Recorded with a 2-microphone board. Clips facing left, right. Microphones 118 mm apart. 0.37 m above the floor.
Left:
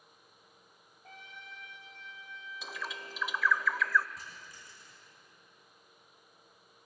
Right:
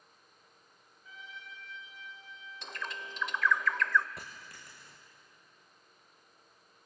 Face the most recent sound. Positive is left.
turn(degrees=-65)  # may be behind; listen again after turning